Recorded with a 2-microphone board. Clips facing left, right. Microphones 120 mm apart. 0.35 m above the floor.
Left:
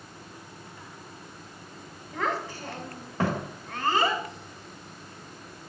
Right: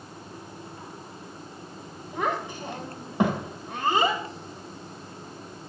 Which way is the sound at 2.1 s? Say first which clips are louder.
Right 2 dB; 20° right (ahead or behind).